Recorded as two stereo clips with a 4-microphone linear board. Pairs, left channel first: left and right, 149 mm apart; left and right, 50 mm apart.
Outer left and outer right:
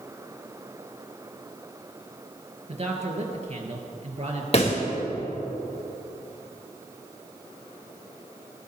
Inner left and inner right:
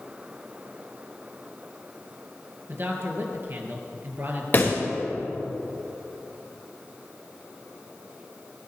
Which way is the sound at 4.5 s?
40° left (ahead or behind).